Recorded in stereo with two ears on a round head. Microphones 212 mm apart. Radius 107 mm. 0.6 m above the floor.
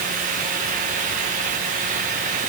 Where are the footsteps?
I don't hear footsteps.